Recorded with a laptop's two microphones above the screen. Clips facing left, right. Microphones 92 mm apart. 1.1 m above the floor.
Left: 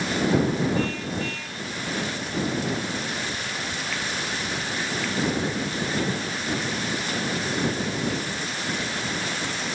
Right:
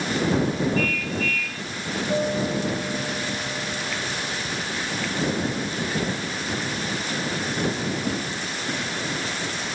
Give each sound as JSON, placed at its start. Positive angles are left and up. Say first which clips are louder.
{"t": 0.8, "sound": "a car horn", "louder": "right 1 dB", "side_deg": 30}
{"t": 2.1, "sound": "a guitar", "louder": "right 5 dB", "side_deg": -65}